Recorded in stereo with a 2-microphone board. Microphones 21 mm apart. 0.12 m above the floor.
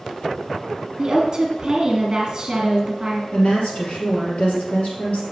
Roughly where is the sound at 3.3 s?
Left.